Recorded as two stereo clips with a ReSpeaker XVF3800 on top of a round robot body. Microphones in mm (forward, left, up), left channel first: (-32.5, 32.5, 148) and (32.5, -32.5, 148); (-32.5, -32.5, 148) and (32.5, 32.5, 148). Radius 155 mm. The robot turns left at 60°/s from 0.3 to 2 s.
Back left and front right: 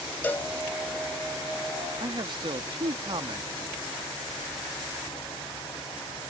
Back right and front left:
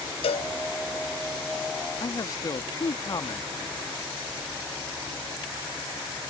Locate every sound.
0.2 s a cowbell: 155° right; by 0.5 s 165° right
2.0 s a man speaking: 85° right